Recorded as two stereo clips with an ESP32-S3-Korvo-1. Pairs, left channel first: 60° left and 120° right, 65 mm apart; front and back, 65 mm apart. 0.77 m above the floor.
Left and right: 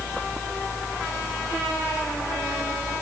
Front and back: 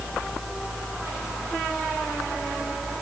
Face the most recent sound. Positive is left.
No sound to turn to.